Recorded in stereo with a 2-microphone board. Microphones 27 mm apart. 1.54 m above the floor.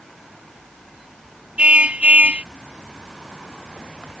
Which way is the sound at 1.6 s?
50° right (ahead or behind).